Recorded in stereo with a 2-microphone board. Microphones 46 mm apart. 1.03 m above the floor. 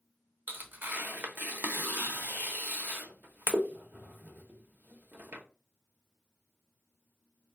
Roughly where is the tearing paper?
Right.